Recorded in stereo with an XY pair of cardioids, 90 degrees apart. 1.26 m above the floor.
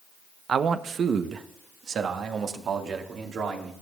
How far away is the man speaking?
About 1.0 m.